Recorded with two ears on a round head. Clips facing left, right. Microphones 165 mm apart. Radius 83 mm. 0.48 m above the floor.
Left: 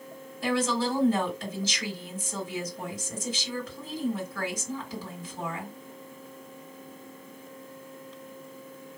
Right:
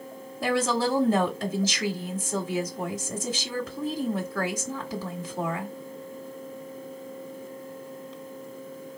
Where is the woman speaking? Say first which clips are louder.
Right 2 dB; 40° right (ahead or behind), 1.6 m.